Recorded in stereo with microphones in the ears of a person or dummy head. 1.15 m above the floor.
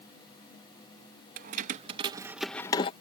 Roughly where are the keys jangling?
Right.